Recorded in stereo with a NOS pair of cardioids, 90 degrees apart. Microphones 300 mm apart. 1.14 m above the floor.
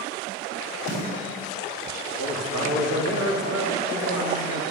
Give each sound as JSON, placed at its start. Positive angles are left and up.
{"t": 0.9, "sound": "a snare drum", "azimuth_deg": -65, "distance_m": 4.0}
{"t": 2.2, "sound": "a man speaking", "azimuth_deg": -60, "distance_m": 3.0}